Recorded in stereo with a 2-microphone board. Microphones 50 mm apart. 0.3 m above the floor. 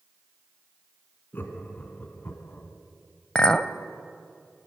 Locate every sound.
1.3 s laughter: 40° left (ahead or behind), 3 m
3.4 s a clink: 15° left (ahead or behind), 0.7 m